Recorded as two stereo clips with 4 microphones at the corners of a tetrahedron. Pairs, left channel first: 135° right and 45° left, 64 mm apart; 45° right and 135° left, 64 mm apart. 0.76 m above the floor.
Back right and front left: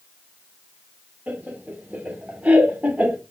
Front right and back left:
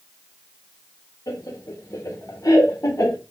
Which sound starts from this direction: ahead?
Laughter, at 1.3 s.